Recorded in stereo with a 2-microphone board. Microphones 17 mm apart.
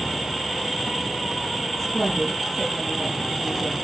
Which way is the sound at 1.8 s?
10° left (ahead or behind).